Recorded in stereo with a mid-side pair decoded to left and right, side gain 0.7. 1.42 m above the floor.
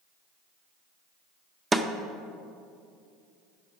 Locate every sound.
1.7 s a snare drum: 15° right, 0.5 m